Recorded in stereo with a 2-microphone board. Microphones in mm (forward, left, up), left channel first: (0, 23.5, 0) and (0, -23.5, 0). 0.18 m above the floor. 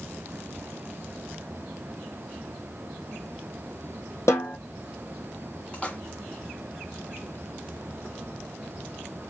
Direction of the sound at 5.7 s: 25° left (ahead or behind).